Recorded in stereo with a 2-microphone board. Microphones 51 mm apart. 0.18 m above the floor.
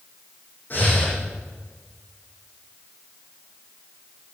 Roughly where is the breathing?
Left.